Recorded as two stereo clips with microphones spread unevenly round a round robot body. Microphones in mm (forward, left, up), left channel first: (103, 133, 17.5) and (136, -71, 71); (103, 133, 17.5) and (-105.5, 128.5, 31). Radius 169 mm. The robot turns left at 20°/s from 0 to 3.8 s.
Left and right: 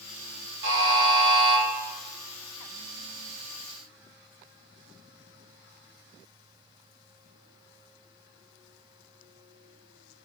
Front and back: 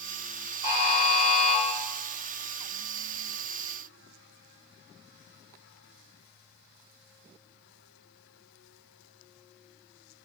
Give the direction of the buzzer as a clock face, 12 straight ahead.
2 o'clock.